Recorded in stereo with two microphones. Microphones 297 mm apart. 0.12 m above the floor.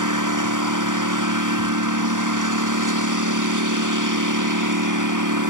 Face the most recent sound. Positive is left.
turn(degrees=-80)